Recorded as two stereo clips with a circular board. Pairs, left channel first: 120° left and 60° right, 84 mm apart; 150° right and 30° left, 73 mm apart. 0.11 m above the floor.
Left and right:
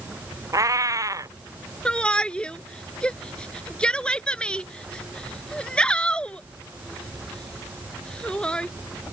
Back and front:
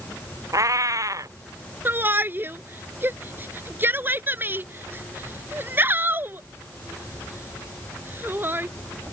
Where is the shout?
50° left.